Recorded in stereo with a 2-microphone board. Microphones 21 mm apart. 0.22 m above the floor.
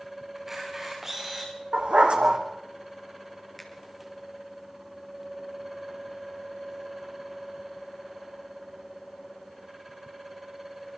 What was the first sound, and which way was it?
A camera shutter, 20° right (ahead or behind).